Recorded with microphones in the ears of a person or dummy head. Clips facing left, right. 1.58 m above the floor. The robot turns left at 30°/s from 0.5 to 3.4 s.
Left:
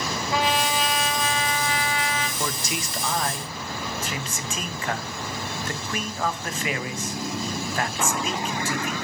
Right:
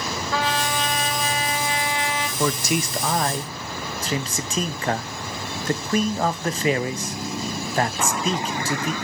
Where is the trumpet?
15° left, 2 m; by 2.3 s 35° right, 2 m.